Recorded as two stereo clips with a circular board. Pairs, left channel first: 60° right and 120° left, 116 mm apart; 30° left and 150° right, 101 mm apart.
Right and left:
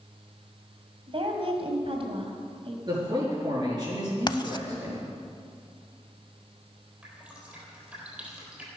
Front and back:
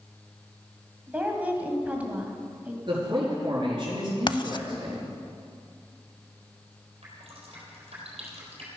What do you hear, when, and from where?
1.1 s a woman speaking: 140° left, 1.9 m
2.9 s a man speaking: 170° left, 5 m
4.3 s writing: 10° right, 0.5 m
7.0 s dripping: 160° right, 3.5 m